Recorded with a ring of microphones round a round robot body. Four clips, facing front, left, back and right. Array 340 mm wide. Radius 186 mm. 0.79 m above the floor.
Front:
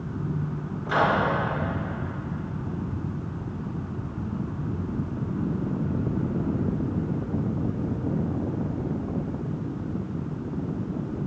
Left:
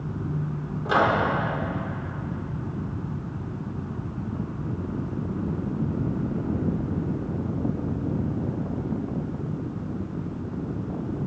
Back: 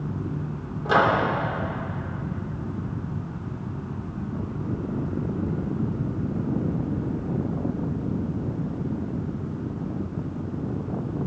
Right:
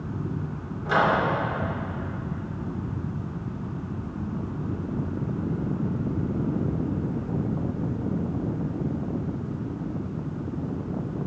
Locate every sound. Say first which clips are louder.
0.8 s a microwave: even, back 3 dB; 155° left, 2.5 m